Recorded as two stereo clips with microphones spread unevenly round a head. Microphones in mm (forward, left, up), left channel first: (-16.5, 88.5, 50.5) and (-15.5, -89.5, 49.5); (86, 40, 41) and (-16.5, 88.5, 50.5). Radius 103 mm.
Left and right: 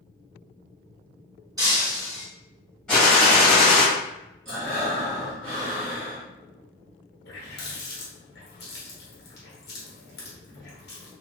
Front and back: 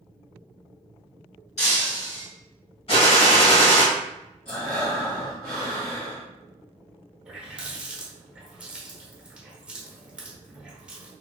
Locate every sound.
1.6 s breaking glass: 20° right, 2.0 m
2.9 s a gunshot: 5° left, 1.5 m
4.5 s breathing: 55° right, 1.9 m
7.2 s a running tap: 85° left, 0.9 m